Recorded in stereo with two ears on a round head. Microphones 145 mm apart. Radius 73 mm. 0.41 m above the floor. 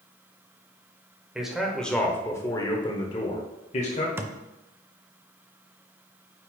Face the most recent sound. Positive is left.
turn(degrees=-15)  # may be behind; listen again after turning